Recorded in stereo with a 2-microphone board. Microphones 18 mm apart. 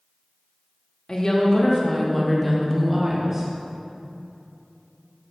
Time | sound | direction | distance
1.1 | a woman speaking | 40° left (ahead or behind) | 1.1 m